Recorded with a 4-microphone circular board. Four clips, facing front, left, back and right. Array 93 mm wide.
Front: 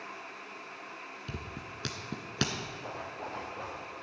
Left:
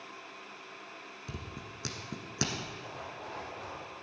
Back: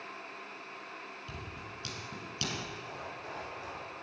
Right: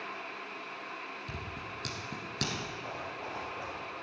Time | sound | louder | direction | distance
1.3 | scissors | right 3 dB, front 2 dB | 20° left | 1.5 m
2.8 | a zipper | right 3 dB, front 3 dB | 20° right | 4 m